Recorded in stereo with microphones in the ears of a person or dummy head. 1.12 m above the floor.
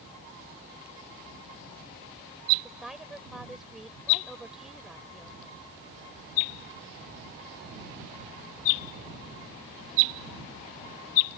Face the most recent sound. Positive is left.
turn(degrees=-5)  # may be behind; listen again after turning